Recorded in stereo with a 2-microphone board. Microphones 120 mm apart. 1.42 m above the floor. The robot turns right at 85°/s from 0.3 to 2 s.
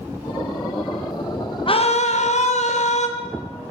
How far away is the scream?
About 1.2 m.